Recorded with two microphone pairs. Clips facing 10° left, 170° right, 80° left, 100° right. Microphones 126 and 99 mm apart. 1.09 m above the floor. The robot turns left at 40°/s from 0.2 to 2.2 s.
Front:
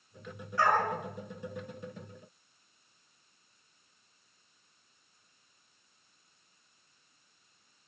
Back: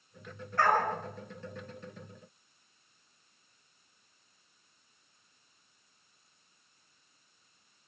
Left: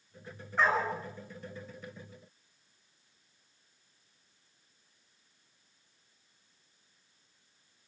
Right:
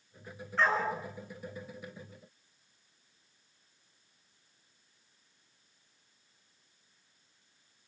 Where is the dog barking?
155° left, 6 m; by 0.9 s 140° left, 6 m.